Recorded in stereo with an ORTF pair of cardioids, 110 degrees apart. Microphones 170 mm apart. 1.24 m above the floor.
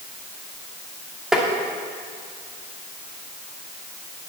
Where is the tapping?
Straight ahead, 2.5 m.